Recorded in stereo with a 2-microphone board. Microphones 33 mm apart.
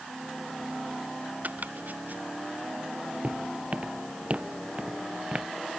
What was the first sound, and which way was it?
Chopping, 60° right (ahead or behind).